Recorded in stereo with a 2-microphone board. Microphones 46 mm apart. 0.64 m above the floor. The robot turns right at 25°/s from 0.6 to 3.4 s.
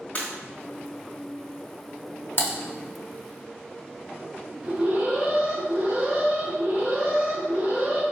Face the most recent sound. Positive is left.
turn(degrees=-25)  # may be behind; listen again after turning